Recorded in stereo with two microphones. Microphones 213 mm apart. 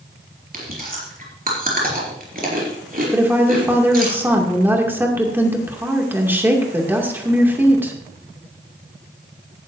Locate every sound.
0.5 s chewing: 45° right (ahead or behind), 4.5 m
3.1 s a woman speaking: 10° right (ahead or behind), 2.5 m